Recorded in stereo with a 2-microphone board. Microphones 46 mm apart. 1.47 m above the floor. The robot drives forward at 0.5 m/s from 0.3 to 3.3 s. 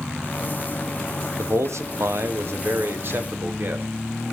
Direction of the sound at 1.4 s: 75° right (ahead or behind).